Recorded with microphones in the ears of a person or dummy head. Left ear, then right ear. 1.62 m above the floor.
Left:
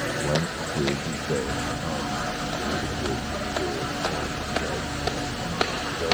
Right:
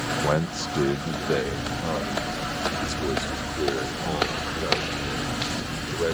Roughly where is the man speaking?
Right.